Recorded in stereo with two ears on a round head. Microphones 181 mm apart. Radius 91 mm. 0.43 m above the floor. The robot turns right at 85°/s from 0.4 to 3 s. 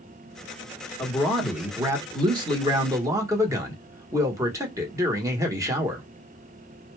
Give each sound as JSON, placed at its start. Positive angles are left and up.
{"t": 1.0, "sound": "a man speaking", "side_deg": 15, "distance_m": 1.0}